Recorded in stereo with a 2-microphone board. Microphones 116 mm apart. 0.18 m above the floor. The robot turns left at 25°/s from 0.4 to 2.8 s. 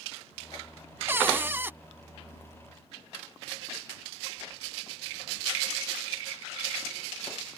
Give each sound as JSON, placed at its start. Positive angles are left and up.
{"t": 1.1, "sound": "a cupboard door", "side_deg": -20}